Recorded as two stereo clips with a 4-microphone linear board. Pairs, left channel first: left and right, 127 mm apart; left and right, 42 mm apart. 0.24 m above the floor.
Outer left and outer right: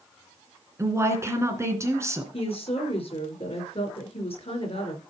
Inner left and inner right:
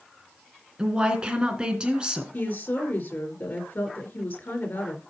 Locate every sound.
0.8 s a woman speaking: 20° right (ahead or behind), 2.5 m
2.3 s a woman speaking: 50° left (ahead or behind), 4.5 m